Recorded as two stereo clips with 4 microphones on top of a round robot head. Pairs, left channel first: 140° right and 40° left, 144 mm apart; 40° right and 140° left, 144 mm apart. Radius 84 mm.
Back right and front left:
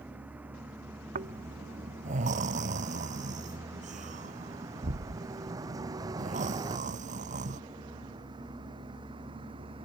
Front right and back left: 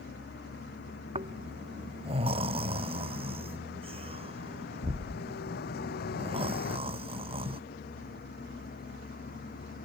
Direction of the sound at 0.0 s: 40° right.